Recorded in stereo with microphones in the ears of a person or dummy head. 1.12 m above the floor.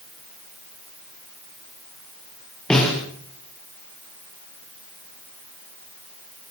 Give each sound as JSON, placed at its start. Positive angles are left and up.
{"t": 2.7, "sound": "a snare drum", "side_deg": 5, "distance_m": 7.0}